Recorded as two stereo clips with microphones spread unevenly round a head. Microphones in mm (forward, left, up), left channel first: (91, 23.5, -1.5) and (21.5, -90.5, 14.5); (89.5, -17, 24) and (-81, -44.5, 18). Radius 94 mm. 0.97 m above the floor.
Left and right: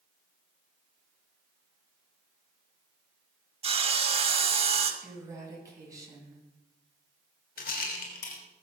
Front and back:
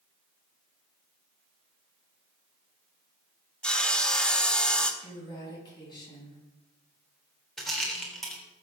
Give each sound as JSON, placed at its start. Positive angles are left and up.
{"t": 3.6, "sound": "sawing", "azimuth_deg": -75, "distance_m": 2.0}
{"t": 5.0, "sound": "a woman speaking", "azimuth_deg": -55, "distance_m": 9.5}
{"t": 7.6, "sound": "a rattle", "azimuth_deg": 100, "distance_m": 3.0}